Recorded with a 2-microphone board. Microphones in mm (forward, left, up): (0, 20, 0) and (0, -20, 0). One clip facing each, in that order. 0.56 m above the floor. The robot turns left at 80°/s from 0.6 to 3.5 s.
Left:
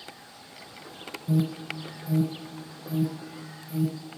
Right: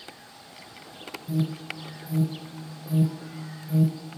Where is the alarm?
60° left (ahead or behind), 1.9 m; by 4.2 s 55° right (ahead or behind), 1.9 m.